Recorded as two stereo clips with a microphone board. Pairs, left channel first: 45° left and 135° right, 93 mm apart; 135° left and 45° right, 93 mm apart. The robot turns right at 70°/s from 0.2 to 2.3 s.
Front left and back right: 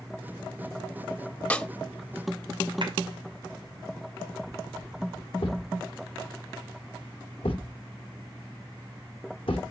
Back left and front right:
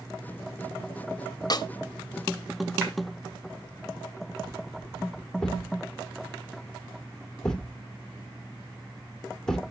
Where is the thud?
50° left, 1.4 m.